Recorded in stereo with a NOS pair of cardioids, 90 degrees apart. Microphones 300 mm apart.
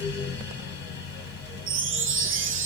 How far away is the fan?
About 1.2 m.